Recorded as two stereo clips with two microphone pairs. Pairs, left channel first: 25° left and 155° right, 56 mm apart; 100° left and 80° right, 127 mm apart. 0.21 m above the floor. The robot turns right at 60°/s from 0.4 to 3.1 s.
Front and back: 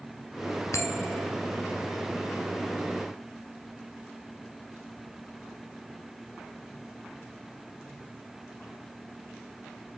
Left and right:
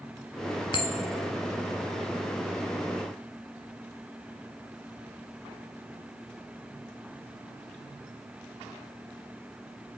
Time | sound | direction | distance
0.7 | a bell | 50° left | 1.5 m